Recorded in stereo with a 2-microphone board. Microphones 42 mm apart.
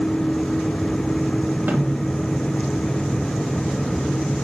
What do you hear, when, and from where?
1.7 s a snare drum: 45° right (ahead or behind), 3 m